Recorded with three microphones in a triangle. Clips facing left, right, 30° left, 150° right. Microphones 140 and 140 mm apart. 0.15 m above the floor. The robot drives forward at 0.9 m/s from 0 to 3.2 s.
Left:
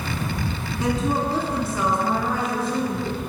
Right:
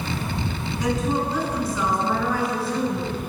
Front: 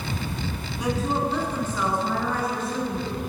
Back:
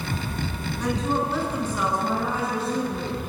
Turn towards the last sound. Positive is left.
turn(degrees=160)